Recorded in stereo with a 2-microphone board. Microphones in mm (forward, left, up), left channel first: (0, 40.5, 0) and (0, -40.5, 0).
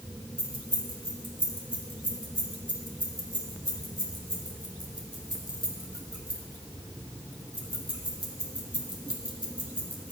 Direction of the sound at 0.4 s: 70° right (ahead or behind).